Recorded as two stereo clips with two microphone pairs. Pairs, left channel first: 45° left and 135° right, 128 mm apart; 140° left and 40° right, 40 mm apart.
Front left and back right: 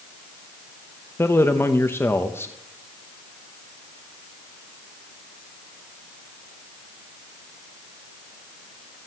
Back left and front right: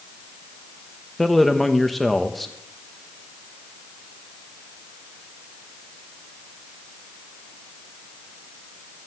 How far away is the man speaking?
About 0.9 m.